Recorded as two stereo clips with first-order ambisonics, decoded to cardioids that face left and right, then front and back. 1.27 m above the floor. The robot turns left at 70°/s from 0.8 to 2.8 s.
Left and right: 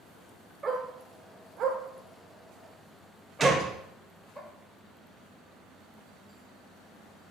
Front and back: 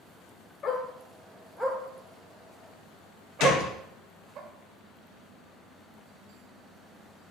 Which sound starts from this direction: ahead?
A gunshot, at 3.4 s.